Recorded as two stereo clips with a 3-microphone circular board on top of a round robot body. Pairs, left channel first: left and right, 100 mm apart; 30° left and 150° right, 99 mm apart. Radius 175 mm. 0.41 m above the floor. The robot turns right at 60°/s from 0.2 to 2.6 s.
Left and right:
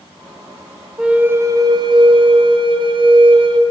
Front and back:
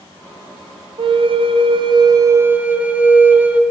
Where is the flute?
175° right, 0.7 m; by 3.6 s 75° right, 0.7 m.